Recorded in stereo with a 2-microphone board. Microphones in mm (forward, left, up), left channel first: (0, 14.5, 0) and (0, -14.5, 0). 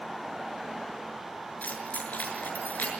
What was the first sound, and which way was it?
Keys jangling, 75° left (ahead or behind).